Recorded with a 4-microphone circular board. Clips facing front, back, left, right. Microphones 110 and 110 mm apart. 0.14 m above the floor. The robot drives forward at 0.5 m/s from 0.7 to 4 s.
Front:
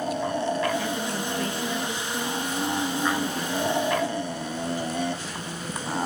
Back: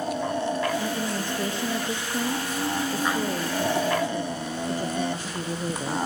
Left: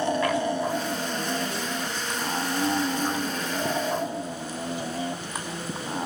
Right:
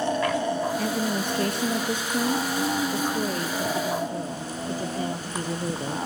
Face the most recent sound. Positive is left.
turn(degrees=-135)